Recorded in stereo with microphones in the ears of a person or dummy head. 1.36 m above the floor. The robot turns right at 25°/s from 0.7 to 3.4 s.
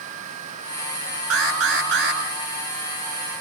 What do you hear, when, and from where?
1.3 s an alarm: 85° right, 7.5 m; by 2.2 s 65° right (ahead or behind), 7.5 m